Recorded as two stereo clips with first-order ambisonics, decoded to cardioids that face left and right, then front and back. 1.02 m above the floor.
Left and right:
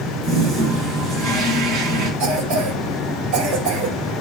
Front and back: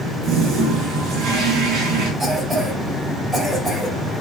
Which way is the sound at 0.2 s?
135° right.